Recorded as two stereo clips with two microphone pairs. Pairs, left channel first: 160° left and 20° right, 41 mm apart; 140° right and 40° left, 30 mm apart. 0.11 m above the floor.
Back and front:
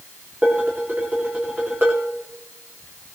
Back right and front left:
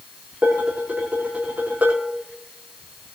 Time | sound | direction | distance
0.4 | dishes clattering | 25° left | 7.5 m